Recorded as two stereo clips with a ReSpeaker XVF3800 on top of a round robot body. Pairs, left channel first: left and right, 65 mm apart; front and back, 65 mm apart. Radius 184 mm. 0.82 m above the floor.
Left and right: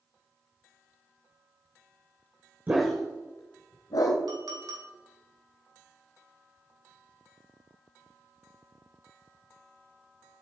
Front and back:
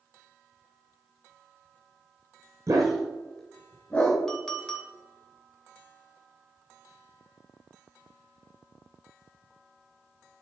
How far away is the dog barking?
About 0.6 m.